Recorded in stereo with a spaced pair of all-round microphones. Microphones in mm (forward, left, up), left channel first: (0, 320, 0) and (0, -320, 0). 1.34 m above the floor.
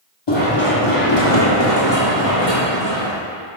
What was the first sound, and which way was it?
Running footsteps, 40° left (ahead or behind).